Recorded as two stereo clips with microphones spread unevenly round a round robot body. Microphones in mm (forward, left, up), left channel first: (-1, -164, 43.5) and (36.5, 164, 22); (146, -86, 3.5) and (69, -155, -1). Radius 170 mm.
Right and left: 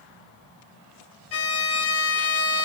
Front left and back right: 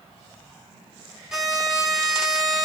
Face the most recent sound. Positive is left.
turn(degrees=-60)